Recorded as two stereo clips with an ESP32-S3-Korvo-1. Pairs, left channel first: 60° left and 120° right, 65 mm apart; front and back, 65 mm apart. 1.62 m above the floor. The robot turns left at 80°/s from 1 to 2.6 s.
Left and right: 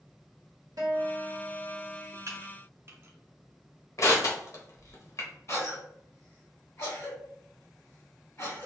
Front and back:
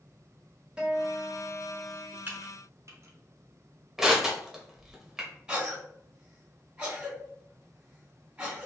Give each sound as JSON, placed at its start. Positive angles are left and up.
{"t": 0.8, "sound": "a guitar", "azimuth_deg": -105, "distance_m": 1.0}
{"t": 2.3, "sound": "typing on a keyboard", "azimuth_deg": -135, "distance_m": 0.6}
{"t": 4.0, "sound": "crushing", "azimuth_deg": 100, "distance_m": 0.7}
{"t": 5.5, "sound": "a cough", "azimuth_deg": 110, "distance_m": 1.5}